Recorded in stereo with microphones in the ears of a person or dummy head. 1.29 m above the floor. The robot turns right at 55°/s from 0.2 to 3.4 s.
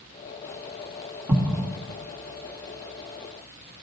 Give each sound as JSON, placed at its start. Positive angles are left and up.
{"t": 1.3, "sound": "an explosion", "side_deg": -10, "distance_m": 1.2}